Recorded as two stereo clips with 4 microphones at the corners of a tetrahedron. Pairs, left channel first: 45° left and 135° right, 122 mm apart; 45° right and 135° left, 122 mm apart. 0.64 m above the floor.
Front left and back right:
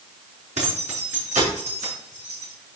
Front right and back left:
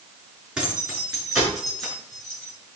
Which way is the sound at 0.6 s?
145° right.